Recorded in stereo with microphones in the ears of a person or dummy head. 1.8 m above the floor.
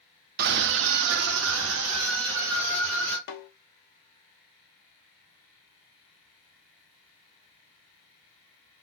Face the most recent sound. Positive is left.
turn(degrees=65)  # may be behind; listen again after turning